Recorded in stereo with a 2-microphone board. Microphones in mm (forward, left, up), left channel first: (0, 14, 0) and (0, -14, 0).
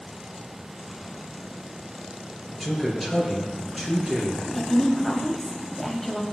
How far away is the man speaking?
About 4 m.